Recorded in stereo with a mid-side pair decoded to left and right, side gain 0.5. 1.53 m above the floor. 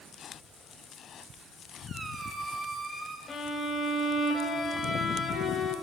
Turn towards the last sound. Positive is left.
turn(degrees=35)